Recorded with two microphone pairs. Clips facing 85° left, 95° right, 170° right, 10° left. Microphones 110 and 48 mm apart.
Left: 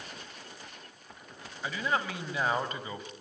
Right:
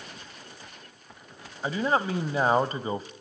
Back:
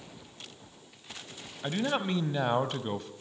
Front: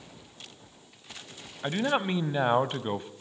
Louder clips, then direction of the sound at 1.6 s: Right 6 dB, front 3 dB; 50° right.